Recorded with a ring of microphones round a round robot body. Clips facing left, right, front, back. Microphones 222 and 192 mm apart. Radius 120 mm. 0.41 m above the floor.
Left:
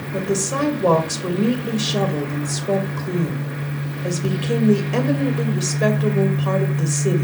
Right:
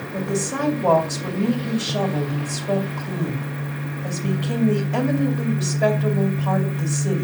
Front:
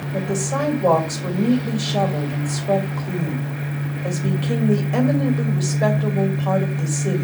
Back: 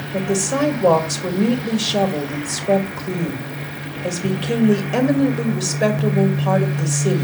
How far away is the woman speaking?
About 2 m.